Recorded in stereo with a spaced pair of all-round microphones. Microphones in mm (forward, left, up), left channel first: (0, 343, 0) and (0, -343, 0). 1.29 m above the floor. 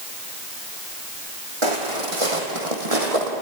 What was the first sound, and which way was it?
Footsteps, 45° right (ahead or behind).